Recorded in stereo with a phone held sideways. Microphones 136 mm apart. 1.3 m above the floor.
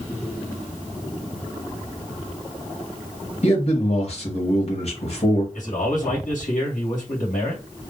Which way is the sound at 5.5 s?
70° left (ahead or behind).